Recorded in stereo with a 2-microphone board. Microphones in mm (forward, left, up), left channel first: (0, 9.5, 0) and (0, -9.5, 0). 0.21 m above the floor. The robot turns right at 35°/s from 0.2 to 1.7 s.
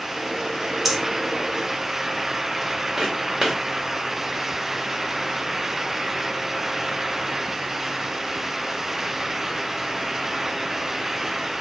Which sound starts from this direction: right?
Footsteps, at 3.0 s.